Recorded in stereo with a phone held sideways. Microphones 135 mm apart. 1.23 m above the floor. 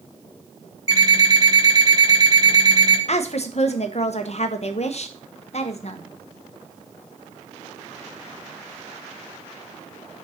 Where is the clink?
No clink in this recording.